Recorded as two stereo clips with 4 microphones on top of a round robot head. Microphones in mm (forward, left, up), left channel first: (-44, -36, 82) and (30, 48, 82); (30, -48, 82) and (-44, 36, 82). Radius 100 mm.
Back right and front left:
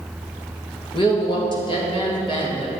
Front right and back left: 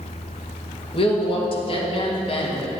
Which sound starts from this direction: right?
A woman speaking, at 0.9 s.